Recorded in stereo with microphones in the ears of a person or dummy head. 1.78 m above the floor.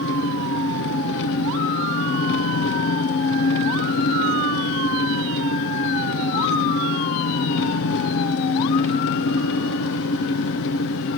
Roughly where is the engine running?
Left.